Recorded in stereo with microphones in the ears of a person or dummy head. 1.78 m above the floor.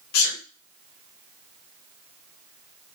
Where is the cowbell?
No cowbell in this recording.